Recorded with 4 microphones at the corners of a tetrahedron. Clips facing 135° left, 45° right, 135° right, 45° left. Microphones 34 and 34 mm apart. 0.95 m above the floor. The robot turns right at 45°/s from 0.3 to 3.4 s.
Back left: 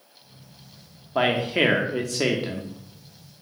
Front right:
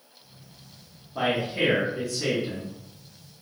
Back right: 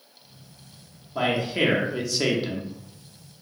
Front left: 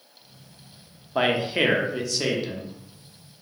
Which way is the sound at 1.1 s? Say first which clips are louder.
Back left 4 dB, front left 2 dB; 95° left.